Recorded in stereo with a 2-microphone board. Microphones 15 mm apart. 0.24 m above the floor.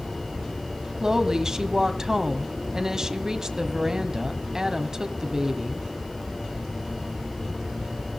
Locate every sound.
1.0 s a woman speaking: 40° right (ahead or behind), 1.7 m